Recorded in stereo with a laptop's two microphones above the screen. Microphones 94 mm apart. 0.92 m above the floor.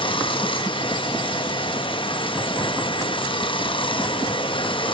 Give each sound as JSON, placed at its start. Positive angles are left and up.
{"t": 0.0, "sound": "running water", "side_deg": 65, "distance_m": 0.8}